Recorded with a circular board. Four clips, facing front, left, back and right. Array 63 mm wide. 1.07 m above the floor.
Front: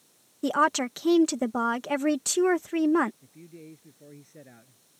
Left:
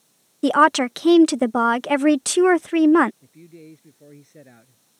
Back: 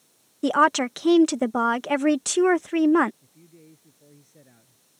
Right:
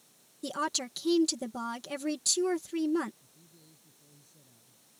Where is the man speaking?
65° left.